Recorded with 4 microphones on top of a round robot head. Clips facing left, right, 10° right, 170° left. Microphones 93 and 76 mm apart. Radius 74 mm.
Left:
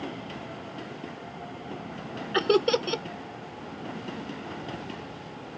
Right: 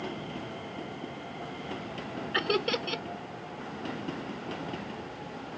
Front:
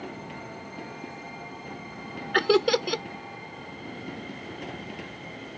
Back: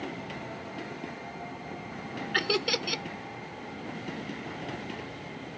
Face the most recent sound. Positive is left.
turn(degrees=35)